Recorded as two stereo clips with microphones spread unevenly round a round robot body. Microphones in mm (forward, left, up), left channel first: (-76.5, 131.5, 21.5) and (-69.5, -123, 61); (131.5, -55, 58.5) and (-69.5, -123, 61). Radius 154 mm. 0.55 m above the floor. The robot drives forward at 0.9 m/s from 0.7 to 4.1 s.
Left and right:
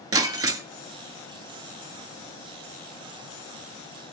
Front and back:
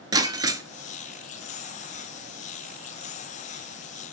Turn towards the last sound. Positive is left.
turn(degrees=-175)